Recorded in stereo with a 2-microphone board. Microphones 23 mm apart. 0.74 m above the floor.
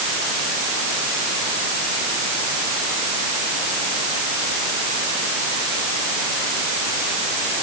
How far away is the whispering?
I don't hear whispering.